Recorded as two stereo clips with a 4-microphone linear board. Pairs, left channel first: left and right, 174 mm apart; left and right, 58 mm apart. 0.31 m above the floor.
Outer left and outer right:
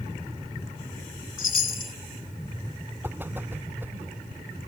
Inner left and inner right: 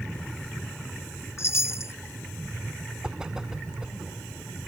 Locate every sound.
1.4 s a chime: 55° left (ahead or behind)
3.0 s a whoosh: 10° right (ahead or behind)